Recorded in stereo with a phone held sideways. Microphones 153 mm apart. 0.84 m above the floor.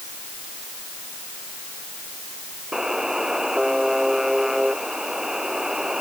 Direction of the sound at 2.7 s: 5° right (ahead or behind).